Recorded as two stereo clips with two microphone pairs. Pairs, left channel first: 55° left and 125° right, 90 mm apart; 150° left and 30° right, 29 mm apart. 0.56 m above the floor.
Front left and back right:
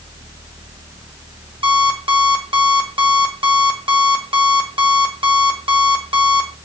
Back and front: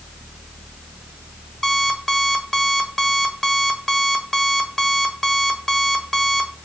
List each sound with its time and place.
1.6 s an alarm clock: 135° right, 1.4 m